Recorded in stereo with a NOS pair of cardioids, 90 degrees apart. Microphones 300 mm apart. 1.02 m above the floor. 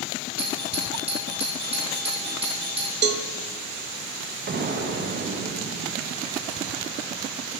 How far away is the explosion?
About 0.7 m.